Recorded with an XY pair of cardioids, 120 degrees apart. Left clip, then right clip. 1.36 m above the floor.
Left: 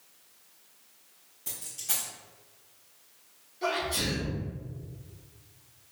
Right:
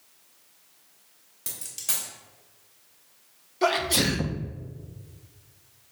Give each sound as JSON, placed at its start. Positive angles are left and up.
{"t": 1.5, "sound": "a dropped coin", "azimuth_deg": -65, "distance_m": 2.0}
{"t": 3.6, "sound": "a sneeze", "azimuth_deg": -70, "distance_m": 0.7}